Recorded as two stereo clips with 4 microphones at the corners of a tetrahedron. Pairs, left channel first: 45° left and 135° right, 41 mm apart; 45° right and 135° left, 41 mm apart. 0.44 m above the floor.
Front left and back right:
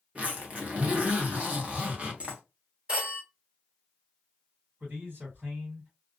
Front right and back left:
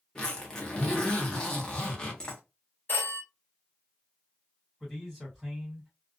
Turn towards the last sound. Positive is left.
turn(degrees=-140)